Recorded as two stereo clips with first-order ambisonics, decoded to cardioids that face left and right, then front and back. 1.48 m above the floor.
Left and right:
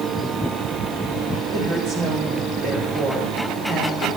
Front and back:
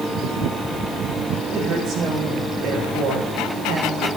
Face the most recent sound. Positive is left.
turn(degrees=-140)